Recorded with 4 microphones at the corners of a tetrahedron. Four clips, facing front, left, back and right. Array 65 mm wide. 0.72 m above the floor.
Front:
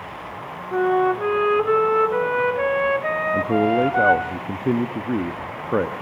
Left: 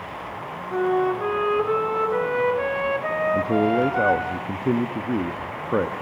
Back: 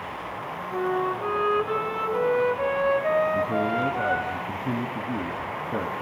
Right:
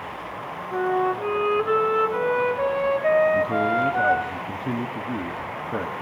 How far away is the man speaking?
About 0.8 m.